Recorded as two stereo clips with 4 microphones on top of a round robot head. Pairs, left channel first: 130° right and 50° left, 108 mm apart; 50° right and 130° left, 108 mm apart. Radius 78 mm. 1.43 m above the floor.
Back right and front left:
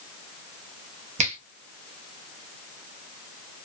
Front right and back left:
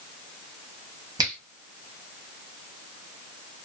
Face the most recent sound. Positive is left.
turn(degrees=75)